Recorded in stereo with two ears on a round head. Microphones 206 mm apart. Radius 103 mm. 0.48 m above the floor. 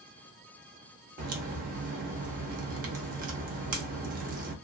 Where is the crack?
40° right (ahead or behind), 0.7 m.